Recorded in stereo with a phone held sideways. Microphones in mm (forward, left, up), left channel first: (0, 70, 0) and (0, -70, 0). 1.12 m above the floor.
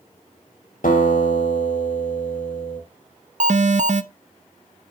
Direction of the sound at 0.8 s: 80° left.